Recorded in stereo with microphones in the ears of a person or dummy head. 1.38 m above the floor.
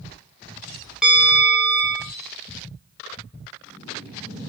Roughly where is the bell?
Centre.